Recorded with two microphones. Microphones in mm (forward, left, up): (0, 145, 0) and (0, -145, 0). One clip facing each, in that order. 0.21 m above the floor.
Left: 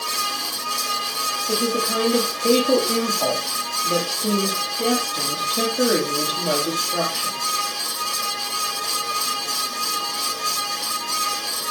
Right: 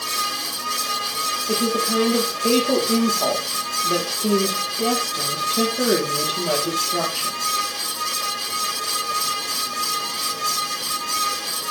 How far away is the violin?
No violin in this recording.